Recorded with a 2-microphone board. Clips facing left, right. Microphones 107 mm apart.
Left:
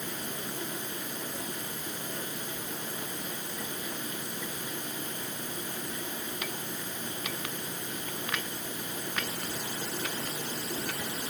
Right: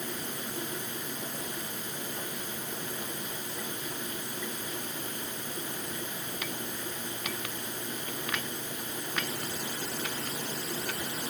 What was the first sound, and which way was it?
Only background noise.